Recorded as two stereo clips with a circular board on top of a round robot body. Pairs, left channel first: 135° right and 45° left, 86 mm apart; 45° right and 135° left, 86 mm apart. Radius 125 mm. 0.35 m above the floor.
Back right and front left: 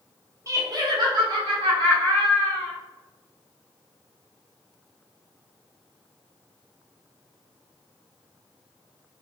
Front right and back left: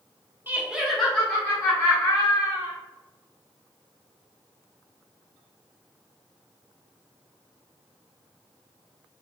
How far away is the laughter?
About 1.0 m.